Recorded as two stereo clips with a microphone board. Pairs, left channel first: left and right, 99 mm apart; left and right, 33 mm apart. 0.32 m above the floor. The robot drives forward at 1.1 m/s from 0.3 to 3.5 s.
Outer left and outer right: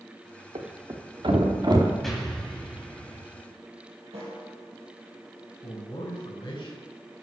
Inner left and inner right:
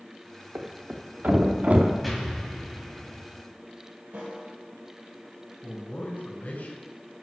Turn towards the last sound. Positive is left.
turn(degrees=65)  # may be behind; listen again after turning